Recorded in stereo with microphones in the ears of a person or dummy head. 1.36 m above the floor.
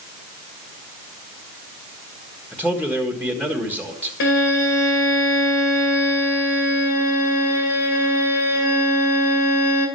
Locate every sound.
2.5 s a man speaking: 10° left (ahead or behind), 1.6 m
4.2 s a violin: 65° left (ahead or behind), 2 m